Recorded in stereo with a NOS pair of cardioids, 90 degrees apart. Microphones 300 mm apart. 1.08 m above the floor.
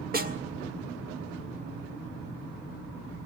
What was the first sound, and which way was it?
A snare drum, 30° right.